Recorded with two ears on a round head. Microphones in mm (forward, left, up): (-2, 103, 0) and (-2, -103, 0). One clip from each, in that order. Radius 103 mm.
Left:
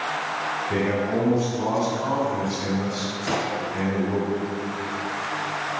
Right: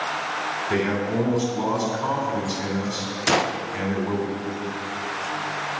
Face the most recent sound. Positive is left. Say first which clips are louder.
# right 5 dB
turn(degrees=-45)  # may be behind; listen again after turning